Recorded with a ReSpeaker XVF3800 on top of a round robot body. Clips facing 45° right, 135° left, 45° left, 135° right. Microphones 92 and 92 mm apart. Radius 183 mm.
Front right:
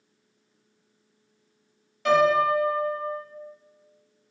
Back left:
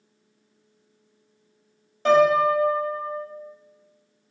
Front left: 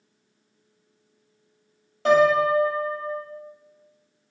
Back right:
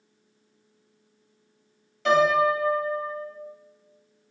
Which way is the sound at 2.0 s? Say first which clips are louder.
Back left 3 dB, front left 2 dB; 85° left.